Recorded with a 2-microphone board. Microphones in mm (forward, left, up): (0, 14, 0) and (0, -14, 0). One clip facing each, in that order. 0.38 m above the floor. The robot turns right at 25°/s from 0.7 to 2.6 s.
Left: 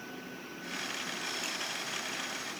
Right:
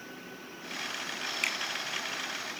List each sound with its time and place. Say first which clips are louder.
1.4 s a finger snap: right 6 dB; 60° right (ahead or behind), 1.9 m